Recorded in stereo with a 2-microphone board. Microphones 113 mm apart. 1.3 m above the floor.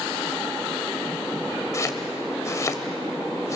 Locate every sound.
1.7 s chopping: 30° left (ahead or behind), 1.5 m